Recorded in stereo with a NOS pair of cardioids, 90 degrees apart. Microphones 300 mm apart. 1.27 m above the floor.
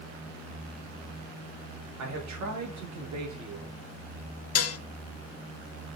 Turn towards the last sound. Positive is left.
turn(degrees=55)